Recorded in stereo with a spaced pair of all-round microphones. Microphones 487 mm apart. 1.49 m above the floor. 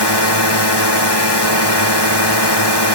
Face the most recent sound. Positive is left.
turn(degrees=55)  # may be behind; listen again after turning